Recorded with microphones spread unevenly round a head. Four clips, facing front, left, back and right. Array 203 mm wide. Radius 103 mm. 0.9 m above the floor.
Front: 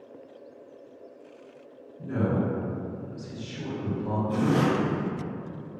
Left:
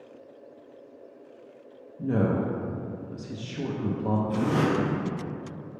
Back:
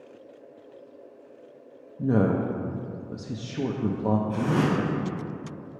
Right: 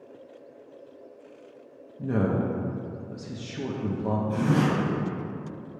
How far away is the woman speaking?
About 0.5 m.